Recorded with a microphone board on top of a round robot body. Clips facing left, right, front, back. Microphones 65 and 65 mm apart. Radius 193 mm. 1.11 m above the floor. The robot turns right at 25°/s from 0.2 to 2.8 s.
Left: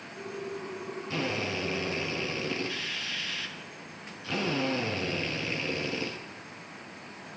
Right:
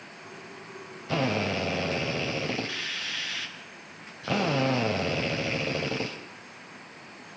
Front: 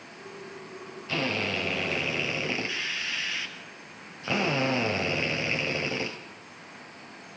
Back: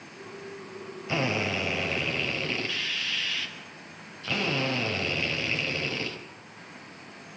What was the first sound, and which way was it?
A drill, 110° right.